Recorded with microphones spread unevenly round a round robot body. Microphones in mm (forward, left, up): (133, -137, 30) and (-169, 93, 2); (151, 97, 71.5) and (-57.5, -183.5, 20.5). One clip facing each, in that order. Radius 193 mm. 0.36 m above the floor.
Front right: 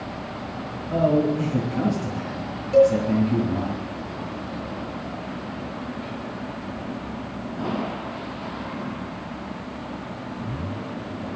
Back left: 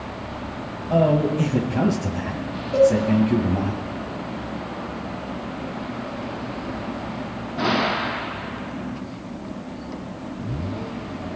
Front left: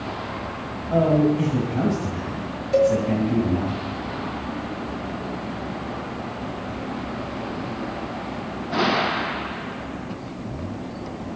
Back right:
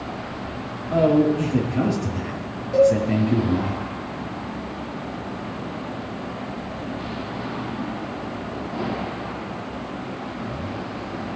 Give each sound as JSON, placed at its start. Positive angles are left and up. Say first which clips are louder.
{"t": 0.9, "sound": "a man speaking", "louder": "even, back right 1 dB", "azimuth_deg": 135, "distance_m": 2.0}
{"t": 2.7, "sound": "a cowbell", "louder": "even, back right 2 dB", "azimuth_deg": 40, "distance_m": 5.5}